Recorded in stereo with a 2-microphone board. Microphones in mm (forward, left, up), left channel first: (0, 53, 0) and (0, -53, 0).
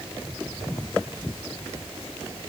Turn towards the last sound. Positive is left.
No sound to turn to.